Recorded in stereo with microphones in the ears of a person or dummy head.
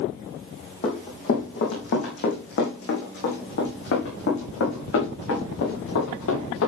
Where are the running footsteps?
35° left (ahead or behind), 4 m; by 6.7 s 70° left (ahead or behind), 7.5 m.